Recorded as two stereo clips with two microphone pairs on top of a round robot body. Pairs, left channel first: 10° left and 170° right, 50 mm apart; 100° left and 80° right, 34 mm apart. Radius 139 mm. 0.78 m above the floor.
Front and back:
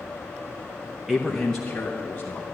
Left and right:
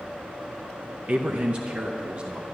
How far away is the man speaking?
About 1.0 m.